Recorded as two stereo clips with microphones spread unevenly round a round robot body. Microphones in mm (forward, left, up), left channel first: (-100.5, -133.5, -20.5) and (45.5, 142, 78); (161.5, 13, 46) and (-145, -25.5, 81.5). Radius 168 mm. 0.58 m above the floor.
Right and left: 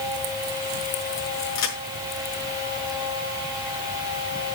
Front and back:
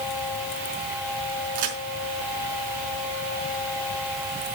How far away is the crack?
About 5.5 m.